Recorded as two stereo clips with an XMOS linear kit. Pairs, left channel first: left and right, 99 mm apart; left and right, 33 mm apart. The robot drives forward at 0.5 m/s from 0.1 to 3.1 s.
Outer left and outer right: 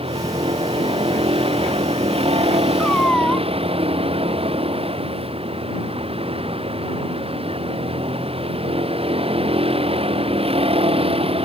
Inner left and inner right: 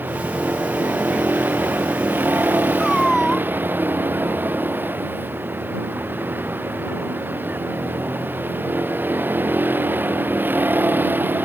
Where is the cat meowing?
10° left (ahead or behind).